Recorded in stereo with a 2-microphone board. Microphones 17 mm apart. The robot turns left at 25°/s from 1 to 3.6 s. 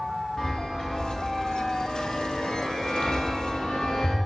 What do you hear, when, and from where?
0.4 s a chime: 50° left (ahead or behind), 4 m; by 4.2 s 60° left (ahead or behind), 4 m